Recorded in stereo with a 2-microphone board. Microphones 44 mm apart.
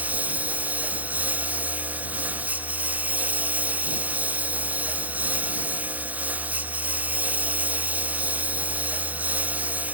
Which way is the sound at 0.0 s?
40° right (ahead or behind).